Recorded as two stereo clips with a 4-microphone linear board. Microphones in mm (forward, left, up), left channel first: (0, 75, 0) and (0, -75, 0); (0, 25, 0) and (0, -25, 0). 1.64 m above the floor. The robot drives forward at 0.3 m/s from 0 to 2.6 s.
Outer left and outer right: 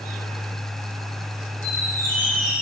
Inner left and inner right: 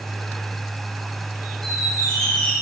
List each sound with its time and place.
1.6 s a squeak: 15° left (ahead or behind), 1.2 m; by 2.5 s 10° left (ahead or behind), 1.5 m